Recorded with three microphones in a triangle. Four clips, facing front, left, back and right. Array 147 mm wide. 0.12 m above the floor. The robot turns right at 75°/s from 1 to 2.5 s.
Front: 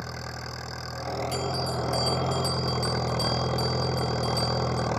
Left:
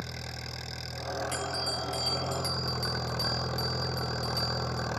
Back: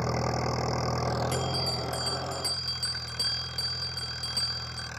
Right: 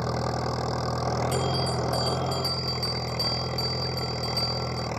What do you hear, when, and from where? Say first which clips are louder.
0.0 s an engine running: right 14 dB, back 8 dB; 125° right; by 5.0 s 15° right
1.3 s a bell: right 7 dB, front 2 dB; 155° left; by 4.9 s 120° right